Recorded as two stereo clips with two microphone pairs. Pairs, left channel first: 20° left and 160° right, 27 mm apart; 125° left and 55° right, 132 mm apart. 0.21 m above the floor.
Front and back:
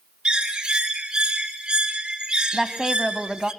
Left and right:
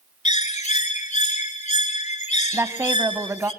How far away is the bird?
About 1.8 m.